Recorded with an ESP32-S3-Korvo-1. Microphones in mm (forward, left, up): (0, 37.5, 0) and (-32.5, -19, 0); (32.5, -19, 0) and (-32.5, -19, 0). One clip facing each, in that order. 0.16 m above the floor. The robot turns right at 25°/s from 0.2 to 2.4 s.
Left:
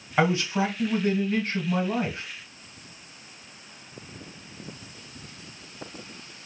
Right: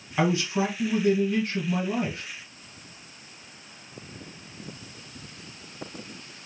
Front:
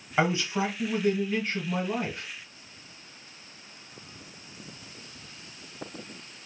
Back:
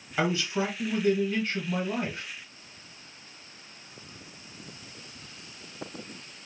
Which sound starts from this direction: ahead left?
A man speaking, at 0.2 s.